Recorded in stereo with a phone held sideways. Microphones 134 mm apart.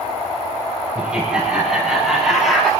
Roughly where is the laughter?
Centre.